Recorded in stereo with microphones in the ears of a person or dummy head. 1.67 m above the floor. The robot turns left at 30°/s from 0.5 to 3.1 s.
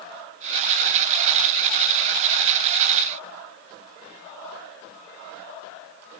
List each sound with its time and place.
Only background noise.